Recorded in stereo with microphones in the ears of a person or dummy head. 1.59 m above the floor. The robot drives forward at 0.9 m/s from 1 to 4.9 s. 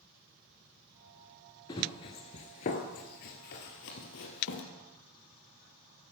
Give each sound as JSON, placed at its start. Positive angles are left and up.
{"t": 1.7, "sound": "running footsteps", "side_deg": 15, "distance_m": 1.6}